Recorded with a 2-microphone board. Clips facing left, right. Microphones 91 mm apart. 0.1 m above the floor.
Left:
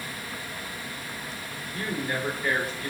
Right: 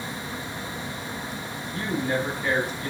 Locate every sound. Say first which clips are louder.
1.7 s a man speaking: right 4 dB; 5° right (ahead or behind), 1.5 m